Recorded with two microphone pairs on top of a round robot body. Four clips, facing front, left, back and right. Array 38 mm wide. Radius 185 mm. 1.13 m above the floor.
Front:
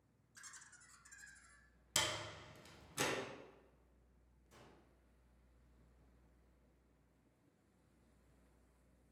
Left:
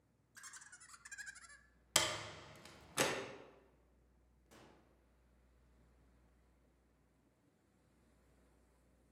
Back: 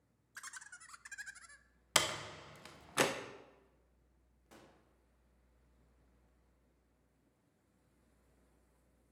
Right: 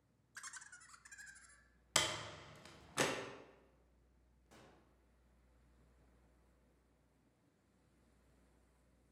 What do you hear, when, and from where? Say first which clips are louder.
0.3 s laughter: right 4 dB, back 9 dB; 155° right, 0.7 m; by 1.7 s 135° left, 0.6 m
1.9 s a door slam: even, back 6 dB; 175° right, 0.7 m
4.5 s a gunshot: left 1 dB, back 3 dB; 175° right, 1.5 m